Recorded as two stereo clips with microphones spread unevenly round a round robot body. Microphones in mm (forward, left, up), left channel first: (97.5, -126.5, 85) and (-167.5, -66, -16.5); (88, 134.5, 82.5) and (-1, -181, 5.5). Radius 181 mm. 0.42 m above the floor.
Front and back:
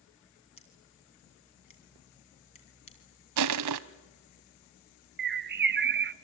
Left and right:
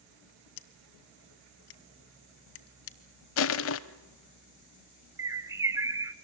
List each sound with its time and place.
0.6 s scissors: 60° left, 1.2 m
3.4 s crushing: 130° left, 0.6 m
5.2 s a bird: 175° right, 0.6 m